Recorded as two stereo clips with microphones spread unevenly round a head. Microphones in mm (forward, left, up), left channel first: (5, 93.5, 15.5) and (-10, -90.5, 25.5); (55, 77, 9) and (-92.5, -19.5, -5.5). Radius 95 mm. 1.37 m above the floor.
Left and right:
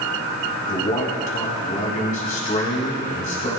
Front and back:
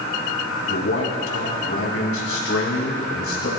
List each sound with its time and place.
0.7 s a man speaking: 35° left, 5 m